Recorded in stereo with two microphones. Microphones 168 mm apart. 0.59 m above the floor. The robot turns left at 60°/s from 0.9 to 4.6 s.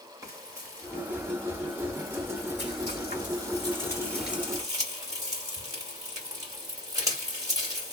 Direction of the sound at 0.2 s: 20° right (ahead or behind).